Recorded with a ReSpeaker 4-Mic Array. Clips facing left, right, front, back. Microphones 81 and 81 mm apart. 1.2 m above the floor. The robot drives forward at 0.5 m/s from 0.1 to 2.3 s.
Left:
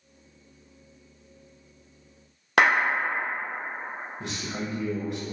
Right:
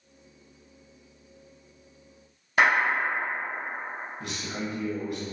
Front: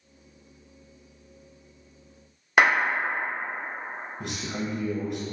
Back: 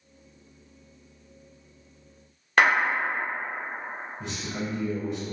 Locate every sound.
2.6 s a clap: 80° left, 1.3 m
4.2 s a man speaking: 20° left, 0.7 m